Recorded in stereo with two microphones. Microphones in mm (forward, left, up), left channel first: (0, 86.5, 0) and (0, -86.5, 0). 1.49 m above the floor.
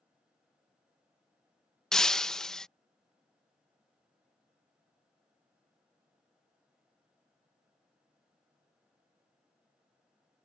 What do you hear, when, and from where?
1.9 s breaking glass: 5° left (ahead or behind)